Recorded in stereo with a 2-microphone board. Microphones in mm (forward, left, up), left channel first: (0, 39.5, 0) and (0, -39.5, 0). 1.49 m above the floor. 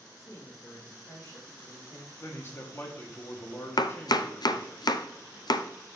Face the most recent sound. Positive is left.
turn(degrees=65)  # may be behind; listen again after turning